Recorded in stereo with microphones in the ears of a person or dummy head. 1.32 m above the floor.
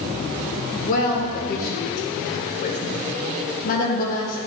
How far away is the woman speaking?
About 0.7 m.